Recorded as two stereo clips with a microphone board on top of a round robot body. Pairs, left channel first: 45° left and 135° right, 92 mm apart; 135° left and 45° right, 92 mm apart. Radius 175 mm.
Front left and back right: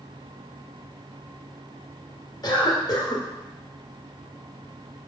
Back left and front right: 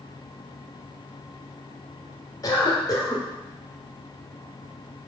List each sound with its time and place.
2.4 s a cough: 85° left, 2.5 m